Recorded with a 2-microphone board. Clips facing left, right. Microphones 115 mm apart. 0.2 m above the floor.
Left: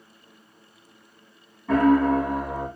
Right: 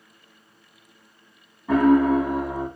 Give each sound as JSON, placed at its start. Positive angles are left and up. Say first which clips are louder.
{"t": 1.7, "sound": "a piano", "louder": "right 2 dB", "side_deg": -10, "distance_m": 0.9}